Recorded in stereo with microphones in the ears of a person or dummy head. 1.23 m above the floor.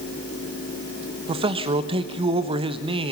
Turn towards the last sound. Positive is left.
turn(degrees=-30)  # may be behind; listen again after turning